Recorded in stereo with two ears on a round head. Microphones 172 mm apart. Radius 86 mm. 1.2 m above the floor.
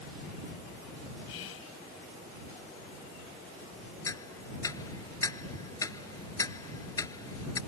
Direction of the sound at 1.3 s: 80° left.